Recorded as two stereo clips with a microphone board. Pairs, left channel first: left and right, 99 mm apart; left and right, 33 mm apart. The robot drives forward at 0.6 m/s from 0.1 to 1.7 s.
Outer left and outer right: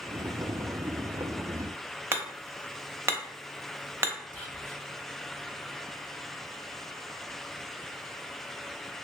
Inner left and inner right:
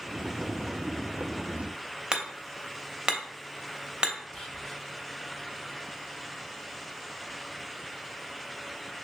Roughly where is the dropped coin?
No dropped coin in this recording.